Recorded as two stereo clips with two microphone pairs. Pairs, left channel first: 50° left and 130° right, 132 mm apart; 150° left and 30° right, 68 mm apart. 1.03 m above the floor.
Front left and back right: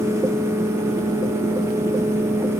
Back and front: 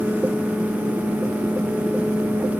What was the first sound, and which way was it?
Only background noise.